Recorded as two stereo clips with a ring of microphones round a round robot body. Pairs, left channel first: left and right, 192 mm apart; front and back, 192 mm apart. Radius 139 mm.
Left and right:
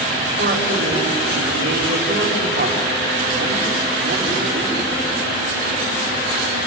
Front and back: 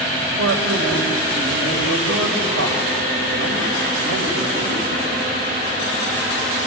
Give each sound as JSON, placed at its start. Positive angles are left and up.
{"t": 0.4, "sound": "a man speaking", "azimuth_deg": -150, "distance_m": 4.0}